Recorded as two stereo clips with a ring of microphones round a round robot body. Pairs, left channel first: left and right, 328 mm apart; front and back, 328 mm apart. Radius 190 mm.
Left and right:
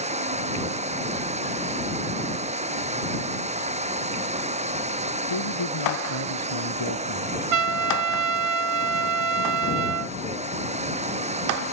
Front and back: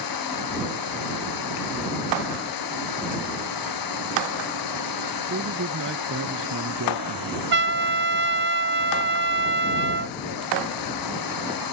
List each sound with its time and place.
0.0 s running water: 20° right
5.3 s a man speaking: 120° left
7.5 s a trumpet: 125° right